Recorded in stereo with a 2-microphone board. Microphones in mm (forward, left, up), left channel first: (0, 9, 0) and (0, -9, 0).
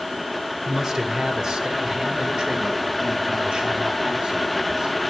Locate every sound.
0.7 s a man speaking: 30° right (ahead or behind), 2 m; by 4.9 s 75° right (ahead or behind), 5.5 m